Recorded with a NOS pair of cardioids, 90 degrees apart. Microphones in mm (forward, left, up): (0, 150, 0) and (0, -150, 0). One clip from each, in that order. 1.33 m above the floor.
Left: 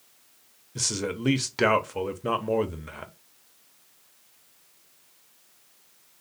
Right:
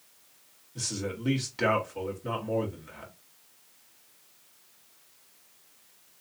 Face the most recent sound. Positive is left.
turn(degrees=40)